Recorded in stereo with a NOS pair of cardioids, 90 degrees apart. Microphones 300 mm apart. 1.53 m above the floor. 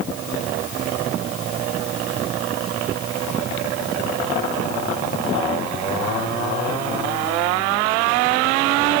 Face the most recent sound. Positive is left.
No sound to turn to.